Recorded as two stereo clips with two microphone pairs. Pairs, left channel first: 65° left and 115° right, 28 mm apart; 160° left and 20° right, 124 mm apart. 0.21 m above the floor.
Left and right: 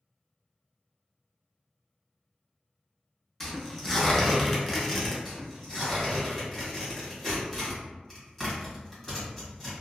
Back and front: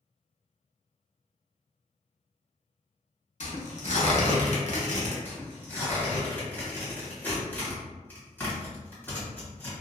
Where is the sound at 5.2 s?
140° left, 1.4 m.